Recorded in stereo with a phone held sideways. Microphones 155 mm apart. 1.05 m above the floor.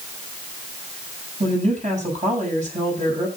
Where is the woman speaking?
50° right (ahead or behind), 8 m.